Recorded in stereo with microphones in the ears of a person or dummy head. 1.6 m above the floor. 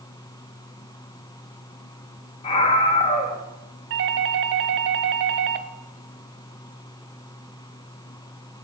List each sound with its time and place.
2.4 s a scream: 30° left (ahead or behind), 2 m
3.9 s a doorbell: 60° right (ahead or behind), 0.9 m